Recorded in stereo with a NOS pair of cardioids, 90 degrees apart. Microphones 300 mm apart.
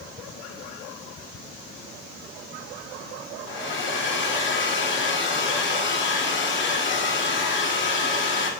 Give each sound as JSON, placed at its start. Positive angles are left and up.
{"t": 3.5, "sound": "a hair dryer", "azimuth_deg": 40, "distance_m": 1.0}